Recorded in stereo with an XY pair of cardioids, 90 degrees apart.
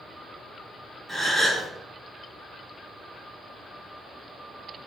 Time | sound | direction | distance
1.1 | a gasp | 10° right | 1.9 m